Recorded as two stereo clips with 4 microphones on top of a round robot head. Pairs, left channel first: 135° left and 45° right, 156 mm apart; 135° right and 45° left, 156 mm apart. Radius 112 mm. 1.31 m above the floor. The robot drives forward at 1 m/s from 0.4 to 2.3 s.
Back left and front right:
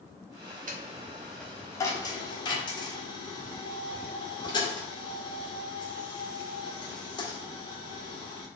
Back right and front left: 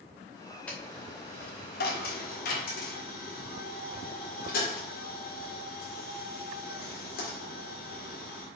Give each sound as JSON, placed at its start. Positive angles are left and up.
{"t": 0.7, "sound": "a dropped coin", "azimuth_deg": -55, "distance_m": 0.9}